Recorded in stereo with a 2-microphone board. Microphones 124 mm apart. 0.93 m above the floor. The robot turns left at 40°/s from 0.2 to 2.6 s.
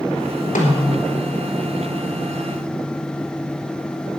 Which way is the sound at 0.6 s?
75° left (ahead or behind).